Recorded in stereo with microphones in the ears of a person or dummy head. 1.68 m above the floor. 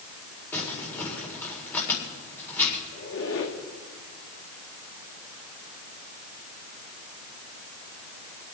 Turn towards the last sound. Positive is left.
turn(degrees=60)  # may be behind; listen again after turning